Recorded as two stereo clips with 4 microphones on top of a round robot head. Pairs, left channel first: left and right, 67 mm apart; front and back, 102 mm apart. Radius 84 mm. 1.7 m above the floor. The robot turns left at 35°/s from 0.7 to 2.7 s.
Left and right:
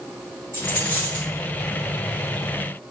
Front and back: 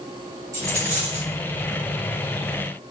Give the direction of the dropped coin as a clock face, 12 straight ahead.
7 o'clock.